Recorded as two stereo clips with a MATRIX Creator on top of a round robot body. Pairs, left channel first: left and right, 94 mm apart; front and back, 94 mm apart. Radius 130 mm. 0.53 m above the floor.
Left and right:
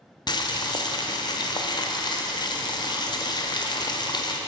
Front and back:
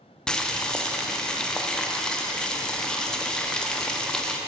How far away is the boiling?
About 0.7 m.